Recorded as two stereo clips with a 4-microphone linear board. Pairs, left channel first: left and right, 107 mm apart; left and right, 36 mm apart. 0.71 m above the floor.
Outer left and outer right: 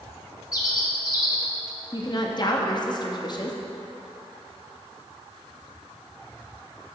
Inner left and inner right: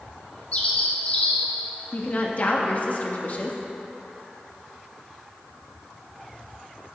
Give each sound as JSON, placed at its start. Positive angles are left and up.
{"t": 0.5, "sound": "a bird", "side_deg": 35, "distance_m": 1.0}
{"t": 1.9, "sound": "a woman speaking", "side_deg": 40, "distance_m": 0.8}